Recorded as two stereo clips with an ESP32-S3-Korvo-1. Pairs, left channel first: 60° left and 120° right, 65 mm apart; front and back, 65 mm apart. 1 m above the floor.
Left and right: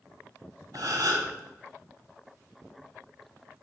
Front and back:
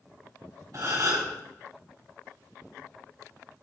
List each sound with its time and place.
0.7 s a gasp: 145° right, 2.5 m